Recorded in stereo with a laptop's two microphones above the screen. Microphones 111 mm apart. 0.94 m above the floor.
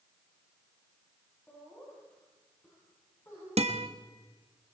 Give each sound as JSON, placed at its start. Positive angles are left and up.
{"t": 1.5, "sound": "laughter", "side_deg": 10, "distance_m": 9.5}
{"t": 3.6, "sound": "a guitar", "side_deg": -65, "distance_m": 1.6}